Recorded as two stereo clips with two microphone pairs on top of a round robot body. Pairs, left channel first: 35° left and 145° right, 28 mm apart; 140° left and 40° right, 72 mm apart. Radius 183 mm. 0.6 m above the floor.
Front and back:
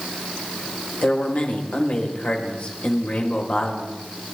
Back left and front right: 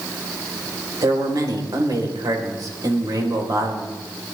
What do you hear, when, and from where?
1.0 s a man speaking: 5° right, 3 m